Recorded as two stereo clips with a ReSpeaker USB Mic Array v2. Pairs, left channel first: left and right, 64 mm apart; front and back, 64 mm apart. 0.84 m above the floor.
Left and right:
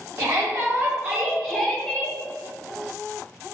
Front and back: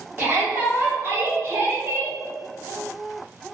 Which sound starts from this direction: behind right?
A shout, at 0.2 s.